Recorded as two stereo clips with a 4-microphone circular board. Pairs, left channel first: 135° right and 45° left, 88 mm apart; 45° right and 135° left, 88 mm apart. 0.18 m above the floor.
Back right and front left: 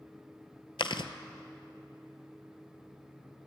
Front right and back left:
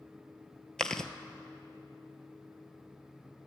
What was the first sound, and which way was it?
Chewing, 125° right.